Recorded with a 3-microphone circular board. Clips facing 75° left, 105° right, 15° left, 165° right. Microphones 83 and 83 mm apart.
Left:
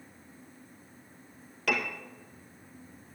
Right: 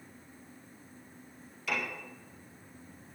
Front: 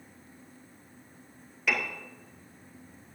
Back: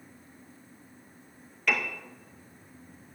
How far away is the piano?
About 1.9 m.